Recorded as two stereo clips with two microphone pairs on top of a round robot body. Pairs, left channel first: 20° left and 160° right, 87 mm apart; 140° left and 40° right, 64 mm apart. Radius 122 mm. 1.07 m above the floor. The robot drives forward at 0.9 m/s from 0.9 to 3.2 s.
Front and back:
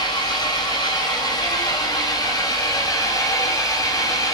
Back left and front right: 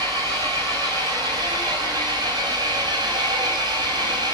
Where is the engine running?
20° right, 8 m; by 4.3 s 30° right, 6 m.